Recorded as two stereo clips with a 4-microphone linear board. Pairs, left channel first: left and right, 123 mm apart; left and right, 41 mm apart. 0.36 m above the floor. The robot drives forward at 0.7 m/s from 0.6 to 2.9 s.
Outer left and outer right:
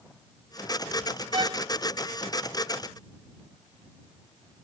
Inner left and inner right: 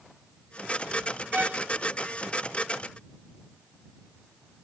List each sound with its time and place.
1.3 s a violin: 40° right (ahead or behind)